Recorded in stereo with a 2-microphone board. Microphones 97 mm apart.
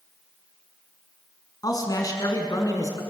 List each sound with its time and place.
1.6 s a man speaking: 40° left (ahead or behind), 4.5 m; by 3.0 s 35° left (ahead or behind), 5 m